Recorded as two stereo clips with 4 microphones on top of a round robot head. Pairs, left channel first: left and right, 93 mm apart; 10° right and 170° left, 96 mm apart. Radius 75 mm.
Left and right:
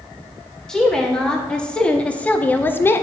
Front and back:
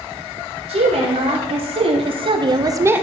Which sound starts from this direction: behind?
A woman speaking, at 0.7 s.